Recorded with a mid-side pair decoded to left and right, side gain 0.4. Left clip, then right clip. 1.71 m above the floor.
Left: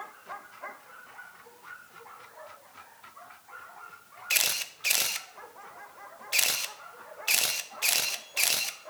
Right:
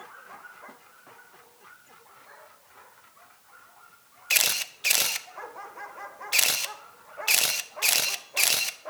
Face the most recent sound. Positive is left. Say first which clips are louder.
# right 3 dB
turn(degrees=-25)